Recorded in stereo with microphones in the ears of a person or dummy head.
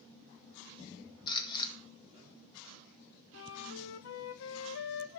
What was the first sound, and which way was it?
A camera shutter, 25° left (ahead or behind).